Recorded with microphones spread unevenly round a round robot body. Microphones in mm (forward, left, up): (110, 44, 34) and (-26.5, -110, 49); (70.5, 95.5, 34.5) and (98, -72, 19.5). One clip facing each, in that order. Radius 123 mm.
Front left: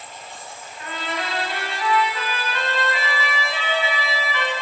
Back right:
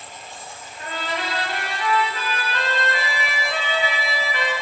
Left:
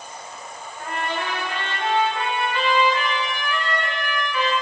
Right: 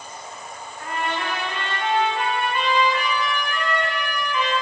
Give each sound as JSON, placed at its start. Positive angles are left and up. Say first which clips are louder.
{"t": 0.8, "sound": "a trumpet", "louder": "back right 1 dB, even", "azimuth_deg": 170, "distance_m": 0.8}